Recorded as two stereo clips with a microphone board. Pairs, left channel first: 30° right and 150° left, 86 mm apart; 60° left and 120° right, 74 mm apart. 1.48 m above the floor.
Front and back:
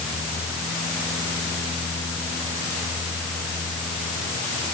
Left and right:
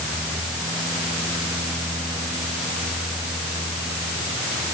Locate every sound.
Only background noise.